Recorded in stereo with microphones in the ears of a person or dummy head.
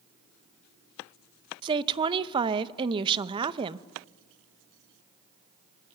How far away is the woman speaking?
About 0.6 m.